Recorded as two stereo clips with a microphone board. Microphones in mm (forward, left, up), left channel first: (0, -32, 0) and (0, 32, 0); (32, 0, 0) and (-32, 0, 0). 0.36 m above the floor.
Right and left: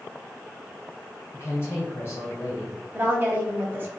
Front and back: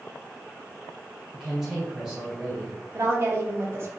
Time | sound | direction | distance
1.3 | a woman speaking | 100° right | 1.6 m
2.9 | a woman speaking | 140° left | 1.5 m